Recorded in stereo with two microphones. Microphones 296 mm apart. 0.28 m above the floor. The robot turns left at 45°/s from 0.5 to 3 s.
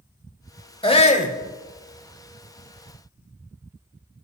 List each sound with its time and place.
0.8 s a shout: 20° left (ahead or behind), 1.3 m; by 1.4 s 25° left (ahead or behind), 1.3 m